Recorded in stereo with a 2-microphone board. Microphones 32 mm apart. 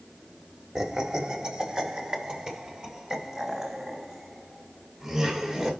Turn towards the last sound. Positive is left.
turn(degrees=-20)  # may be behind; listen again after turning